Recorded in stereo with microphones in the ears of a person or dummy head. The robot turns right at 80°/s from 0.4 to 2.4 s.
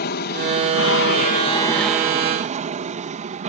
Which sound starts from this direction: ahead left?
An aircraft, at 0.0 s.